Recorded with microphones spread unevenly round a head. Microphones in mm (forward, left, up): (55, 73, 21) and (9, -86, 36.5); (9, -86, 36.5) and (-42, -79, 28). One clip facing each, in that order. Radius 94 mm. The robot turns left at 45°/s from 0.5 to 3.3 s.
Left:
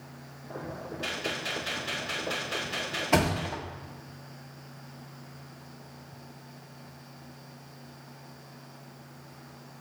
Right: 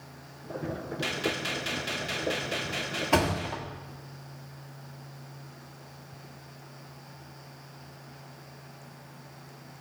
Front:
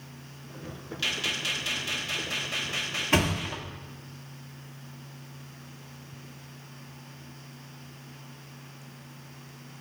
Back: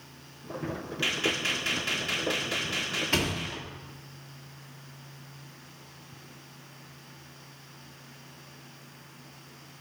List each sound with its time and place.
1.0 s a gunshot: 115° right, 1.7 m; by 3.6 s 140° left, 1.7 m
3.1 s a thud: 15° right, 0.9 m; by 3.6 s 20° right, 0.9 m